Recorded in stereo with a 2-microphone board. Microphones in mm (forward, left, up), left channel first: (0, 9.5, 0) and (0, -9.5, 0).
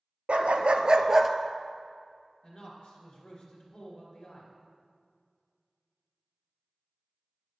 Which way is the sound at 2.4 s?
50° left (ahead or behind).